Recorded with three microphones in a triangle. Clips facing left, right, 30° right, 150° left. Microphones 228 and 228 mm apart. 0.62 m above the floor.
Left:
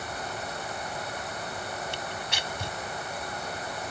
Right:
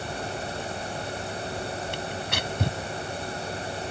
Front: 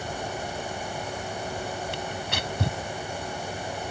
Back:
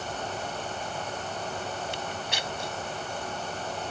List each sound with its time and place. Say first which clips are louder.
1.9 s tearing paper: right 4 dB, front 2 dB; 60° right